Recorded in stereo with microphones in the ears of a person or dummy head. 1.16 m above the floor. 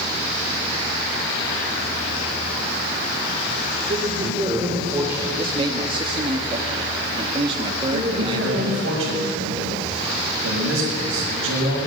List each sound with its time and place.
3.9 s a man speaking: 30° right (ahead or behind), 4 m; by 5.3 s 10° right (ahead or behind), 4.5 m
5.4 s a man speaking: 35° right (ahead or behind), 1.9 m
7.9 s a man speaking: 85° right, 7 m